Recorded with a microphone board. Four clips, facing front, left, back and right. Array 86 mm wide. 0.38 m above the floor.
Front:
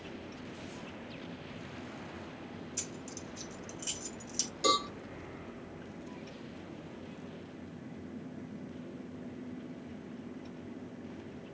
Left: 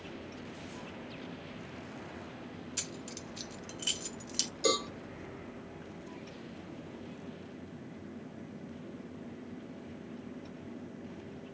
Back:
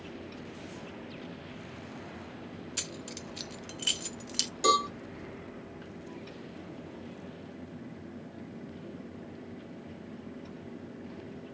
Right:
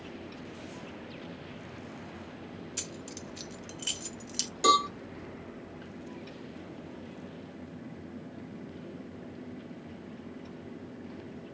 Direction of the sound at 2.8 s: Straight behind.